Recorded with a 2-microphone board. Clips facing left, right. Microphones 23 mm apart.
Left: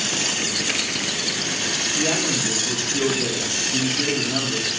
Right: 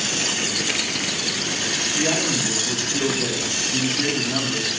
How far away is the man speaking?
About 3 m.